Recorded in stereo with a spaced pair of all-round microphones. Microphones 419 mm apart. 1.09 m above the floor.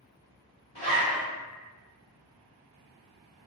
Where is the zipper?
90° left, 1.5 m.